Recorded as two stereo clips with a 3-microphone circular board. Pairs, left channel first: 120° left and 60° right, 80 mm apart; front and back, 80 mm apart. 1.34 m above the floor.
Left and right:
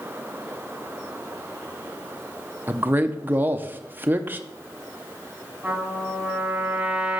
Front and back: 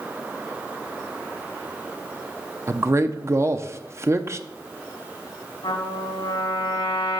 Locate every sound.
2.7 s a man speaking: 125° right, 0.6 m
5.6 s a trumpet: 20° left, 4 m